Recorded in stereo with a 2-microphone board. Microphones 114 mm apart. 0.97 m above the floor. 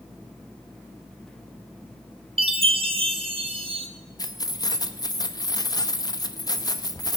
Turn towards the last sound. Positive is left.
turn(degrees=35)  # may be behind; listen again after turning